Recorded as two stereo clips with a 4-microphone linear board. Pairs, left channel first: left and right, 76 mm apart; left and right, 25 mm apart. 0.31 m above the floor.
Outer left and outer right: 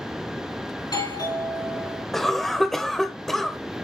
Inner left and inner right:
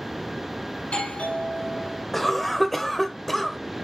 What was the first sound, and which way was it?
A doorbell, 60° left (ahead or behind).